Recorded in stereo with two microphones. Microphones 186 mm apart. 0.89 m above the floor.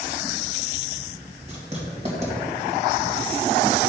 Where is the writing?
40° right (ahead or behind), 2.5 m.